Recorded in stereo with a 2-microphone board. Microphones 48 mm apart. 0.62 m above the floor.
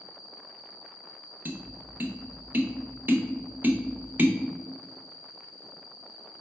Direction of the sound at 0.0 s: 35° right (ahead or behind).